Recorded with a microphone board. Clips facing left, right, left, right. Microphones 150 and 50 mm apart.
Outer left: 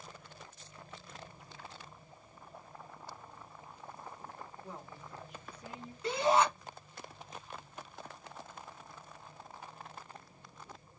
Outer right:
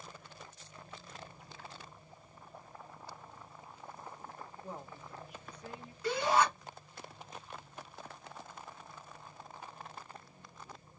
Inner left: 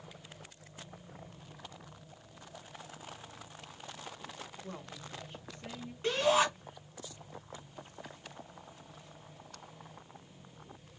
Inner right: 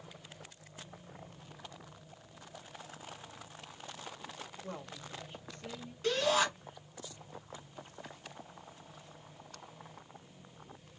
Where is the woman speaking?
45° right (ahead or behind), 1.0 m; by 5.9 s 30° left (ahead or behind), 0.8 m.